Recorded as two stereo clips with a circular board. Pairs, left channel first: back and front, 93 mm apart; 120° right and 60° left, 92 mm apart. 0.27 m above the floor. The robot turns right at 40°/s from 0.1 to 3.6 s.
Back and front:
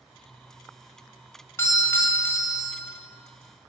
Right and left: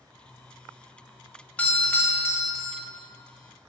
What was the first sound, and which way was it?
A doorbell, straight behind.